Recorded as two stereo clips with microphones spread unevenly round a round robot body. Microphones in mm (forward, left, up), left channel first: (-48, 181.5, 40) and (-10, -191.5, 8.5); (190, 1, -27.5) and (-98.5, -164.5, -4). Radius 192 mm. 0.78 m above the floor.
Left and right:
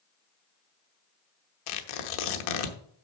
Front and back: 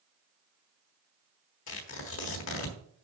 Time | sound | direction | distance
1.7 | tearing paper | 90° left | 1.1 m